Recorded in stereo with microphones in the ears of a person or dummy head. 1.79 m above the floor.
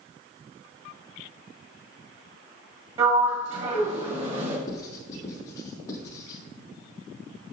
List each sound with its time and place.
3.0 s a sliding door: 35° right (ahead or behind), 1.8 m
4.7 s writing: 20° left (ahead or behind), 2.5 m